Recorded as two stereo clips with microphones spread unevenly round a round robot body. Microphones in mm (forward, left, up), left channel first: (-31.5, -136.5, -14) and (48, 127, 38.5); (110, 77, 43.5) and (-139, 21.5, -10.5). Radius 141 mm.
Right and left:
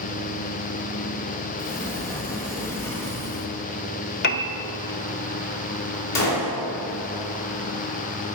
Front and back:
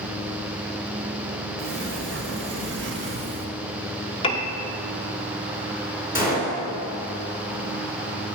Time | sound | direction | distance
1.6 | a sliding door | straight behind | 1.1 m
4.2 | a piano | 65° right | 0.6 m
6.2 | a gunshot | 90° right | 2.5 m